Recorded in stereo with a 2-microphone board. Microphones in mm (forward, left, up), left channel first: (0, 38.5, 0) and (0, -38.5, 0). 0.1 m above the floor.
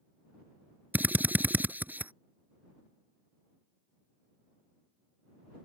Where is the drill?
25° right (ahead or behind).